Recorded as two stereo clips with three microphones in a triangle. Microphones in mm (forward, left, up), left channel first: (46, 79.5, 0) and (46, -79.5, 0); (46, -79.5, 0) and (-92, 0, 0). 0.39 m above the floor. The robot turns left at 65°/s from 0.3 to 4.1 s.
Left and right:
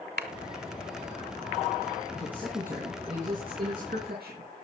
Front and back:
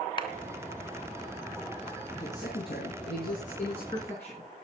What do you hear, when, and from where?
0.2 s a clap: 85° right, 2.5 m
2.1 s a man speaking: 25° left, 4.5 m; by 4.5 s 105° right, 4.5 m